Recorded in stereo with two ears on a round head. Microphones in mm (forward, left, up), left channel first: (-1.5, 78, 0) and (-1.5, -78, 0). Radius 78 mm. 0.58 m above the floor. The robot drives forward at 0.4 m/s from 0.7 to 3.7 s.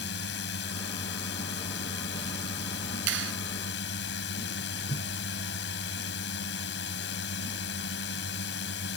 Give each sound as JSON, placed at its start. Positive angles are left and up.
{"t": 0.0, "sound": "a drone", "side_deg": 70}
{"t": 3.1, "sound": "a clap", "side_deg": -75}
{"t": 4.9, "sound": "a whoosh", "side_deg": 30}